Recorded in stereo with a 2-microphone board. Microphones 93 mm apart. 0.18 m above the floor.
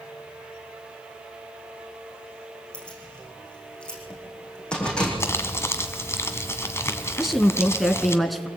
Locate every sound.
2.7 s keys jangling: 10° left (ahead or behind), 7.5 m
5.2 s crumpling: 30° left (ahead or behind), 1.7 m
7.2 s a woman speaking: centre (ahead or behind), 1.6 m